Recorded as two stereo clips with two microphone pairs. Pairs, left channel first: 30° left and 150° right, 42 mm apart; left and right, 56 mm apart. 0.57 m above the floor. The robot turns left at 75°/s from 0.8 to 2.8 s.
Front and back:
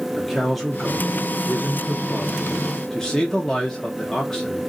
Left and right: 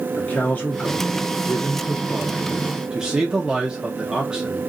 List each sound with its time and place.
0.2 s a man speaking: 120° left, 0.7 m; by 4.6 s 30° right, 0.7 m